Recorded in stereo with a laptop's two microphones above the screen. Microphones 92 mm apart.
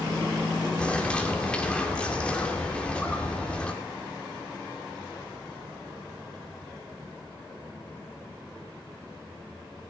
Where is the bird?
10° left (ahead or behind), 2 m.